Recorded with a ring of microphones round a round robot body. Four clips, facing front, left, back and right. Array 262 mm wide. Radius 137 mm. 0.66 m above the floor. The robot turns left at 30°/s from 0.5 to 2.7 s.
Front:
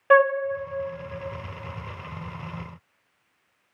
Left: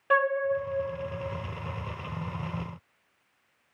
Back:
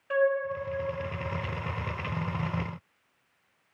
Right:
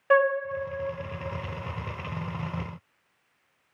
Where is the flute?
15° right, 1.4 m.